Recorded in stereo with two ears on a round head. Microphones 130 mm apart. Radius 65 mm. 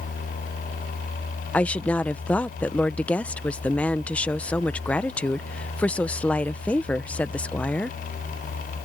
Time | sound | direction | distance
1.5 | a woman speaking | 10° left (ahead or behind) | ?